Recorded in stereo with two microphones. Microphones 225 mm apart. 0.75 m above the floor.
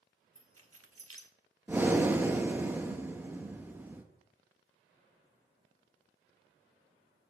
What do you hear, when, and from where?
0.3 s keys jangling: 80° right, 1.3 m
1.7 s breathing: 10° right (ahead or behind), 1.1 m